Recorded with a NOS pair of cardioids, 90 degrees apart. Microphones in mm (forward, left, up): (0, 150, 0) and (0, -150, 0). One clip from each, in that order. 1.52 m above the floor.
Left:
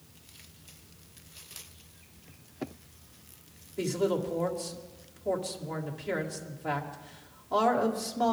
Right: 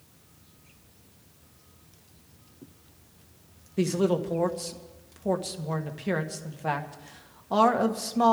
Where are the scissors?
No scissors in this recording.